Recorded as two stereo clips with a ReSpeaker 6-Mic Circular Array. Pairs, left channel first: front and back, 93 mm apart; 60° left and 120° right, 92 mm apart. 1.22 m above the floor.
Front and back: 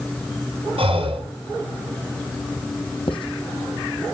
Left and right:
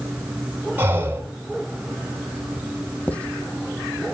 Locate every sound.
0.8 s breathing: 170° left, 2.5 m
3.1 s writing: 15° right, 1.4 m